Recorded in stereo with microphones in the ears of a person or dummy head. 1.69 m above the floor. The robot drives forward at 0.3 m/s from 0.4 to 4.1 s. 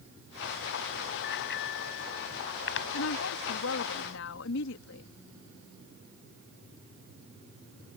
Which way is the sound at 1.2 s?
70° left (ahead or behind).